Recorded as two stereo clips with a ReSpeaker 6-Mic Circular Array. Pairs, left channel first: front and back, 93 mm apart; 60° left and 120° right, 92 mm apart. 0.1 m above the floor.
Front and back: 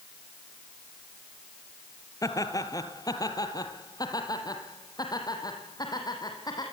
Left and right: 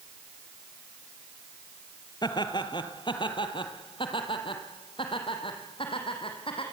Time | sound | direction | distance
2.2 | laughter | 40° left | 2.5 m